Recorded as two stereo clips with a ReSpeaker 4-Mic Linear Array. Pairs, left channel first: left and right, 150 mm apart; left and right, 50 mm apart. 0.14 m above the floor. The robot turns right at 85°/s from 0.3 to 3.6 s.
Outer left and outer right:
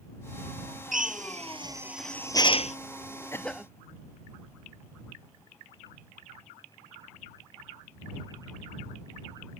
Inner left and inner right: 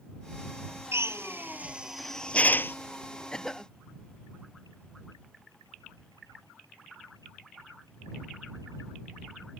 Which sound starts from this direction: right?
A drill, at 0.9 s.